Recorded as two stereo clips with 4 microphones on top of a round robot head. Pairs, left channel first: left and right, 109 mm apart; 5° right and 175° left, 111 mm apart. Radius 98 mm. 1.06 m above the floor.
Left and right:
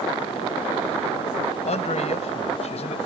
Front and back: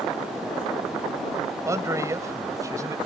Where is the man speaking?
110° left; by 3.0 s 115° left.